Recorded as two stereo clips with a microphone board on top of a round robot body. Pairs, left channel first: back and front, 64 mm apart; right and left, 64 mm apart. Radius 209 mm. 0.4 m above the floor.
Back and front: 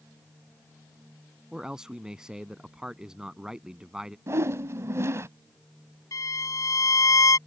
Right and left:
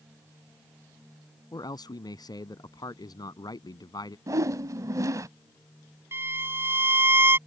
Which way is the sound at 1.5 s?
80° right.